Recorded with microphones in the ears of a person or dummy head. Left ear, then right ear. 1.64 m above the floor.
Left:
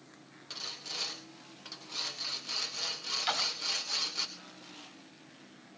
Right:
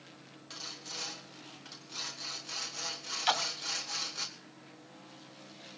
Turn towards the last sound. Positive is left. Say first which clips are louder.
# right 2 dB
turn(degrees=-25)  # may be behind; listen again after turning